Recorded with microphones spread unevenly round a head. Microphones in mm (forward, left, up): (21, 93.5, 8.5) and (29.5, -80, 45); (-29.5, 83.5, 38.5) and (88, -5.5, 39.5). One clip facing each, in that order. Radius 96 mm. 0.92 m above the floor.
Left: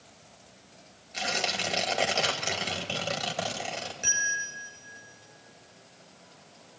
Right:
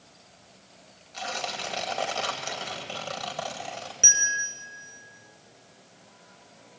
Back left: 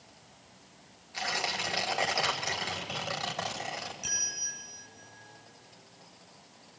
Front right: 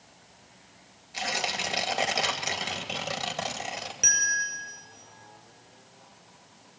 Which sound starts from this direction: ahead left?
Tearing paper, at 1.1 s.